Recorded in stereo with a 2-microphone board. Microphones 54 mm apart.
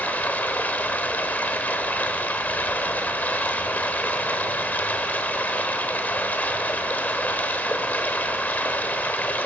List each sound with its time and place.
0.0 s running water: 30° left (ahead or behind), 1.1 m